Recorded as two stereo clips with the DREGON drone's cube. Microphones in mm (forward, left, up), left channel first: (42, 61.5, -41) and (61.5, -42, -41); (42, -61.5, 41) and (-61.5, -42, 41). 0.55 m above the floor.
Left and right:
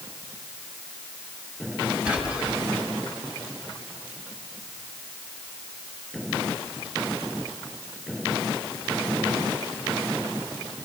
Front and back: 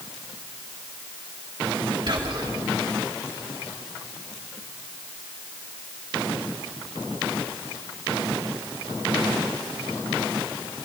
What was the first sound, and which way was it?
Whispering, 155° right.